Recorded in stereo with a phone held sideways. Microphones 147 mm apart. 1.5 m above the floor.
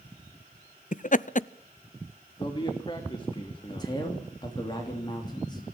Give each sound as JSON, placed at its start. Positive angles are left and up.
{"t": 0.9, "sound": "laughter", "side_deg": 60, "distance_m": 0.6}
{"t": 2.4, "sound": "a man speaking", "side_deg": 30, "distance_m": 2.5}
{"t": 3.7, "sound": "a man speaking", "side_deg": 30, "distance_m": 3.5}